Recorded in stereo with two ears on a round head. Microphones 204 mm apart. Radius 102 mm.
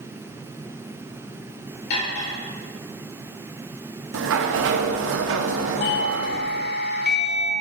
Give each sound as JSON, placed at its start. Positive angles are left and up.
{"t": 1.9, "sound": "cutlery clinking", "side_deg": 75, "distance_m": 2.5}
{"t": 4.1, "sound": "a sliding door", "side_deg": -60, "distance_m": 0.6}
{"t": 5.8, "sound": "a doorbell", "side_deg": 45, "distance_m": 0.9}